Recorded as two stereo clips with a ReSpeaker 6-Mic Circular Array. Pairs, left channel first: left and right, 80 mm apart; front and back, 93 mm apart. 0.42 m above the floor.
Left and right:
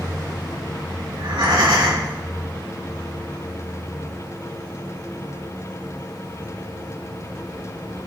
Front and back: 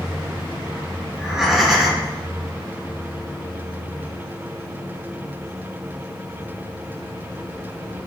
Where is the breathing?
95° right, 4 m.